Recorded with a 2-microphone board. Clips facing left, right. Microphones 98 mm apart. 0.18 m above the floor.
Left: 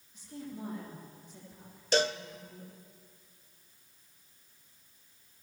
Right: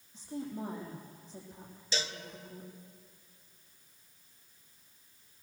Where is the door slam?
I don't hear a door slam.